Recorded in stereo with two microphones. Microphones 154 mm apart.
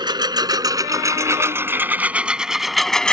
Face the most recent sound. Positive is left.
turn(degrees=5)  # may be behind; listen again after turning